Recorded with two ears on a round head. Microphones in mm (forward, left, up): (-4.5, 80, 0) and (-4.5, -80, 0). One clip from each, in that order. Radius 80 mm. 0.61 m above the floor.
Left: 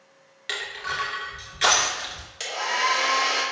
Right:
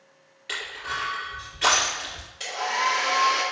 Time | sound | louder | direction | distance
0.5 | crushing | left 1 dB | 65° left (ahead or behind) | 2.5 m
2.4 | a hair dryer | left 1 dB | 55° left (ahead or behind) | 2 m